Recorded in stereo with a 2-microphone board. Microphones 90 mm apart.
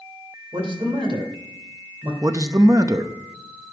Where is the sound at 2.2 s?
40° right (ahead or behind), 0.7 m.